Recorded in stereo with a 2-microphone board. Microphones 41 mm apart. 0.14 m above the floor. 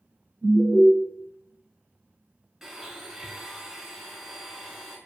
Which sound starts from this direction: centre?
A blender, at 2.6 s.